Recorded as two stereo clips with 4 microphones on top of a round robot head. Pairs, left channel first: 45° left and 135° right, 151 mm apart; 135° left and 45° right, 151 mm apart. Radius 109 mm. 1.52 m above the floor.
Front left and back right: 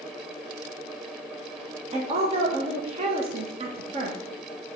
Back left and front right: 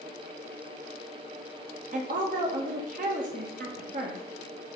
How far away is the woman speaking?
About 1.6 m.